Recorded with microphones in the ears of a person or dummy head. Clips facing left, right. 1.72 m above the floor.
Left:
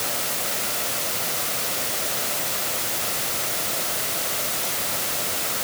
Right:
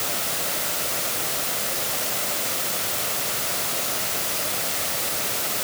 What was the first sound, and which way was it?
Only background noise.